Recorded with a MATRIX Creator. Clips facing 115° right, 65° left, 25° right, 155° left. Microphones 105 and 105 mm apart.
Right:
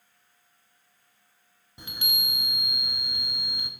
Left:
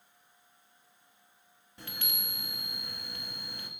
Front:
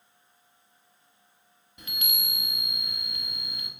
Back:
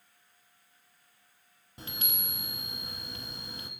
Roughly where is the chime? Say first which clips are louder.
Right 5 dB, front 2 dB; behind.